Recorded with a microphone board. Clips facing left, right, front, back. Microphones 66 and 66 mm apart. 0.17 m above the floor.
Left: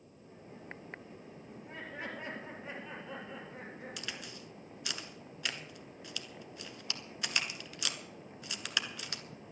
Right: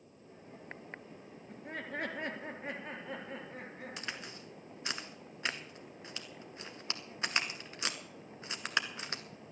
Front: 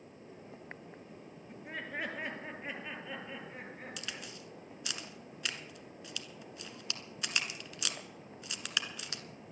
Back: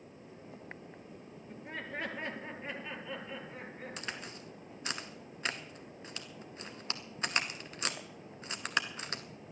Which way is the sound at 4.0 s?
140° right.